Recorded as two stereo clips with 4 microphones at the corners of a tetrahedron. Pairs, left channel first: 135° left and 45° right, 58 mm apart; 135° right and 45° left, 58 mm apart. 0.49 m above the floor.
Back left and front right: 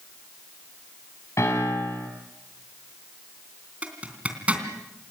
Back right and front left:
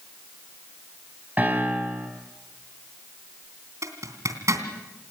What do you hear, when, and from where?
1.4 s a piano: 105° left, 4.5 m
3.8 s a zipper: 25° left, 3 m